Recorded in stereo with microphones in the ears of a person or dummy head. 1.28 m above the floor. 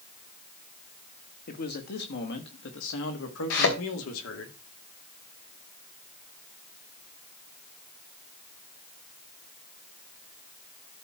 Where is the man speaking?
50° left (ahead or behind), 1.5 m; by 4.5 s 85° left, 2.5 m.